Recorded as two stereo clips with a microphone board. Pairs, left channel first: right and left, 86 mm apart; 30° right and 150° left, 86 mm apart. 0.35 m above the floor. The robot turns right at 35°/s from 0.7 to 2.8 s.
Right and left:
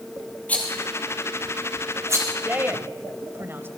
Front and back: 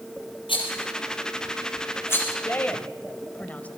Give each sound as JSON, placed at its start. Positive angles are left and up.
{"t": 0.5, "sound": "a rattle", "azimuth_deg": -15, "distance_m": 5.5}
{"t": 2.5, "sound": "a woman speaking", "azimuth_deg": 25, "distance_m": 1.9}